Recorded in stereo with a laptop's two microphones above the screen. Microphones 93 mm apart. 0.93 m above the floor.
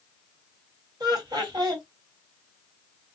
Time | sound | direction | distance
1.0 | laughter | 45° right (ahead or behind) | 1.6 m